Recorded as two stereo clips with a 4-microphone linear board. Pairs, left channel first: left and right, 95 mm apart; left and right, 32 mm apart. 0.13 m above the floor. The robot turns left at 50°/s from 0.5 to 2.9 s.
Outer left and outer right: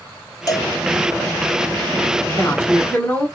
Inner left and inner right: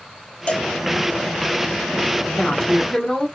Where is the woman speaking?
25° left (ahead or behind), 1.5 m; by 3.3 s 20° left (ahead or behind), 1.5 m.